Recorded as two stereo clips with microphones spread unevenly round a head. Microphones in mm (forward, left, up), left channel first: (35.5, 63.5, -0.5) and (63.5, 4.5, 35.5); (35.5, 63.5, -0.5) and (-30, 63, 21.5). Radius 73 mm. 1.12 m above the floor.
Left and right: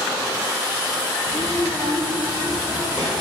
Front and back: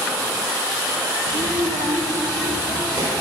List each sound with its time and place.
1.3 s a child speaking: straight behind, 1.3 m; by 3.2 s 150° right, 3.5 m